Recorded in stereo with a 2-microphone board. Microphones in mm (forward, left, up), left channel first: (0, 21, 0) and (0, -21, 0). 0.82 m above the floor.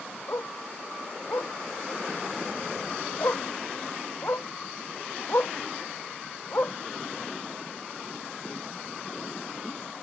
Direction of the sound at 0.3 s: 85° left.